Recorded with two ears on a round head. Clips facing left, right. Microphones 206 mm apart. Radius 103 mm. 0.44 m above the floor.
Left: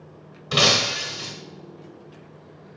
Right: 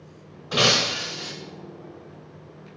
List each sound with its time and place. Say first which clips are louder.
0.5 s breaking glass: even; 40° left (ahead or behind), 1.0 m